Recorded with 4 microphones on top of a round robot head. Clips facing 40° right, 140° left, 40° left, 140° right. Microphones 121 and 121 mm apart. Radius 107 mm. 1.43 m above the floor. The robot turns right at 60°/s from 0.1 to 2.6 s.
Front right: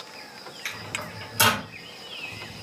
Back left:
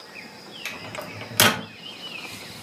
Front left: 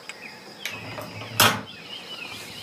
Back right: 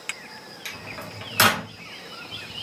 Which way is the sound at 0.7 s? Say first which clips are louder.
Back left 3 dB, front left 3 dB; 70° left.